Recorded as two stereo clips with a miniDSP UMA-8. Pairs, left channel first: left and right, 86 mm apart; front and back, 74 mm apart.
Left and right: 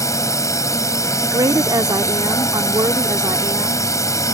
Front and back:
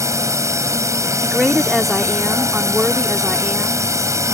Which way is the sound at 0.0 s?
140° left.